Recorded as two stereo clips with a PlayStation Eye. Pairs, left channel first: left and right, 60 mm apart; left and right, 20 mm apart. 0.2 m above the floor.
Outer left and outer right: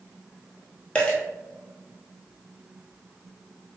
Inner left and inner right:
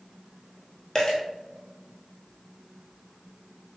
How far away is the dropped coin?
About 1.0 m.